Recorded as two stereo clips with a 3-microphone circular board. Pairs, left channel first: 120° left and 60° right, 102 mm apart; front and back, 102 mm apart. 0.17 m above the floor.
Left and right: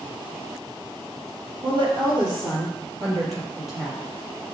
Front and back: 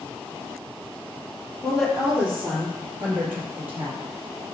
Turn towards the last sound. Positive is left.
turn(degrees=-115)